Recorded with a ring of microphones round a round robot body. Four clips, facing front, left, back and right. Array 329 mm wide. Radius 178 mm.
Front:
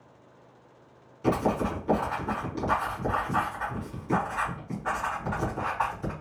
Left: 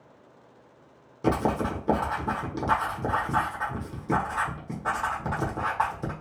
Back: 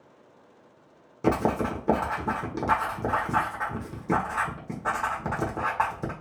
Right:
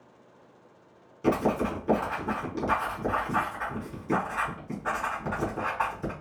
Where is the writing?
155° left, 1.3 m.